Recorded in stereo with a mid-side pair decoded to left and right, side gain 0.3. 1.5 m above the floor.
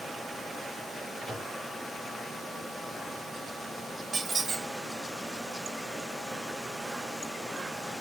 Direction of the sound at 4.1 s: 55° right.